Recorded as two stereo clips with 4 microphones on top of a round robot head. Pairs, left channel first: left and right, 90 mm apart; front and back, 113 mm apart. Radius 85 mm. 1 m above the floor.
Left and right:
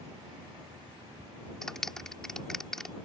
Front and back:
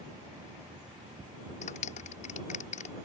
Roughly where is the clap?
Ahead.